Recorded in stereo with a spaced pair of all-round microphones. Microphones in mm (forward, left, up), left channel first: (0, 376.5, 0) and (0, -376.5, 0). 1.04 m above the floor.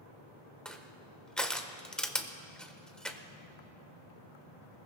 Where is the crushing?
Centre (ahead or behind), 0.9 m.